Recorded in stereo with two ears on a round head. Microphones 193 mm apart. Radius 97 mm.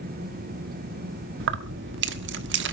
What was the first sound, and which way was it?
Keys jangling, 60° right (ahead or behind).